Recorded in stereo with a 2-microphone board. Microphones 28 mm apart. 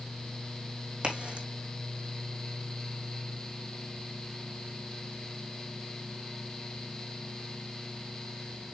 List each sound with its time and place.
1.0 s a crack: 35° right (ahead or behind), 3.5 m